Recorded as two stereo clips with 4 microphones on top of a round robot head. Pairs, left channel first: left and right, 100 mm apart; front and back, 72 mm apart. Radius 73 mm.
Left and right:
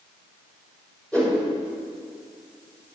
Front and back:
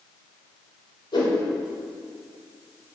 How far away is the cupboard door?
No cupboard door in this recording.